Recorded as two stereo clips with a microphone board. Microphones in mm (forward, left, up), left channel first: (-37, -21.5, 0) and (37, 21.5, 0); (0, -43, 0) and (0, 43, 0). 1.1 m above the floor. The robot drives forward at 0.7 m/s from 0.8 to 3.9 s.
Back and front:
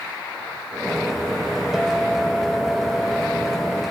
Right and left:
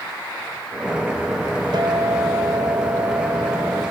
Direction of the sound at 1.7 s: 115° left.